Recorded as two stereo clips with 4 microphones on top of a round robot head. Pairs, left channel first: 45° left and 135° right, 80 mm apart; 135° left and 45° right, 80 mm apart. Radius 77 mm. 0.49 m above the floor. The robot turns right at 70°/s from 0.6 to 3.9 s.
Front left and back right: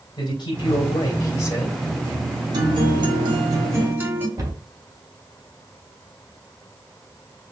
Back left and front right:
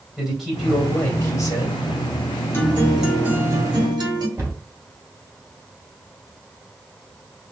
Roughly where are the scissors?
No scissors in this recording.